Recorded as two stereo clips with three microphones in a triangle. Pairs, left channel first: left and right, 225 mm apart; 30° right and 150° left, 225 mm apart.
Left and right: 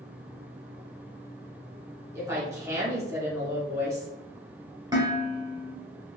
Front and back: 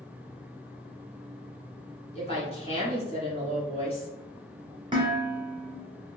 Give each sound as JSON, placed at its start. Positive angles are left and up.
{"t": 2.1, "sound": "a woman speaking", "azimuth_deg": -30, "distance_m": 1.5}
{"t": 4.9, "sound": "dishes clattering", "azimuth_deg": -150, "distance_m": 1.3}